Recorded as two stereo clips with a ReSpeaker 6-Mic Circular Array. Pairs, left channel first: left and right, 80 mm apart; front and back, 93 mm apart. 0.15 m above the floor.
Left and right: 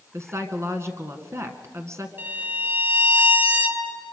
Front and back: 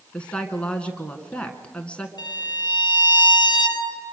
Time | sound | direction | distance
0.1 | a woman speaking | 70° right | 1.9 m
2.2 | a violin | 35° right | 2.5 m